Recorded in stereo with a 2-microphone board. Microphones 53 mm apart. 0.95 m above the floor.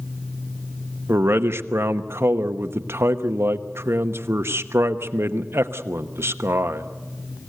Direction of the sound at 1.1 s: 50° right (ahead or behind).